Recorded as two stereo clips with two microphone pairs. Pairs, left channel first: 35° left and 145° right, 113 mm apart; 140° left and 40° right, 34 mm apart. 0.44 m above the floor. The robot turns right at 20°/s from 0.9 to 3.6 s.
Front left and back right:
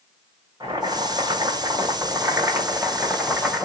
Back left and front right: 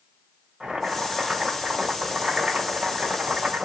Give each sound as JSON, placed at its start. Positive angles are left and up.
{"t": 0.6, "sound": "boiling", "azimuth_deg": -115, "distance_m": 1.7}